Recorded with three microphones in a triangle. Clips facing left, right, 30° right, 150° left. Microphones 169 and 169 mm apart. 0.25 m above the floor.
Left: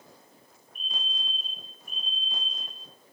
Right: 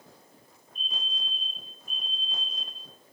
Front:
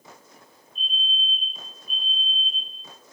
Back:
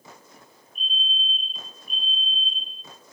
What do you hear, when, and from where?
0.8 s a fire alarm: 80° left, 6.5 m